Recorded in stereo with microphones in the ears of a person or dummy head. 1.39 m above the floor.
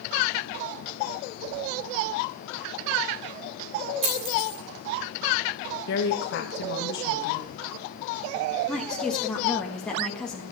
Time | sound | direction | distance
4.0 | a dropped coin | 25° right (ahead or behind) | 1.8 m
5.9 | a woman speaking | 75° left (ahead or behind) | 1.6 m
8.7 | a woman speaking | centre (ahead or behind) | 1.3 m